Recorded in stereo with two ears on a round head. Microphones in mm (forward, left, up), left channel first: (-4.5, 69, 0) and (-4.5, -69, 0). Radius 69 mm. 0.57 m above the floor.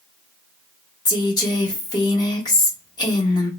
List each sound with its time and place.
1.1 s a woman speaking: 25° left (ahead or behind), 0.9 m